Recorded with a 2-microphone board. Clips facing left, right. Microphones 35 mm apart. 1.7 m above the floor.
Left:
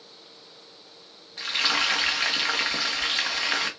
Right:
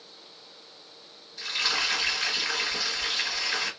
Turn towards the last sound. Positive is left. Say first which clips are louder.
# left 3 dB
turn(degrees=65)  # may be behind; listen again after turning